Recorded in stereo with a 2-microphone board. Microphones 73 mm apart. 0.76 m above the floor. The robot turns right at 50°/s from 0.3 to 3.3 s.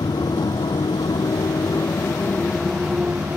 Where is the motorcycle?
65° left (ahead or behind); by 3.4 s 25° right (ahead or behind).